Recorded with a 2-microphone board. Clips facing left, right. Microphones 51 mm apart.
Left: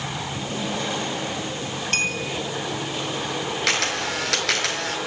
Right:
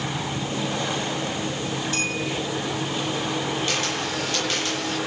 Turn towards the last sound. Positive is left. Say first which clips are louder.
# left 2 dB
turn(degrees=80)